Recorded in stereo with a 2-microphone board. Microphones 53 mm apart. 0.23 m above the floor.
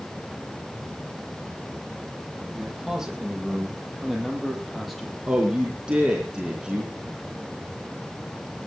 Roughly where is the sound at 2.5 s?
Centre.